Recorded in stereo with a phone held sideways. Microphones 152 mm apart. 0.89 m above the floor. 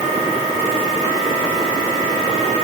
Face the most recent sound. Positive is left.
No sound to turn to.